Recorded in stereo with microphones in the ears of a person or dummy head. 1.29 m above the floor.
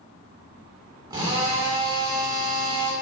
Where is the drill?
25° right (ahead or behind), 2.5 m.